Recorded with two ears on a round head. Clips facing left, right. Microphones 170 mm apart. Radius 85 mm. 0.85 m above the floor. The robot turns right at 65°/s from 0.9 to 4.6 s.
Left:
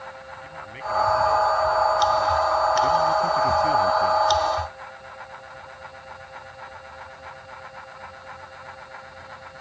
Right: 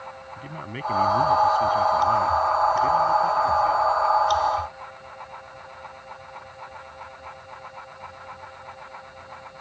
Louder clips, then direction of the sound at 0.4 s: Right 3 dB; 125° right.